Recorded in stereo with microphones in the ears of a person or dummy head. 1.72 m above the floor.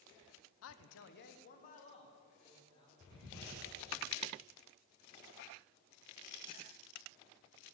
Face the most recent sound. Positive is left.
turn(degrees=25)  # may be behind; listen again after turning